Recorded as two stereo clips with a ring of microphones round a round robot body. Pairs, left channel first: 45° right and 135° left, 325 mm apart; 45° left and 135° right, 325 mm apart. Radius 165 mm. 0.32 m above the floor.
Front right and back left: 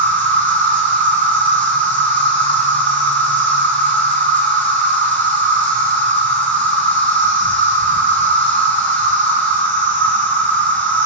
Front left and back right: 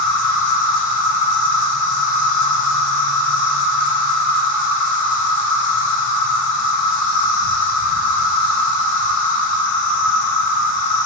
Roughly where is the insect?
Ahead left.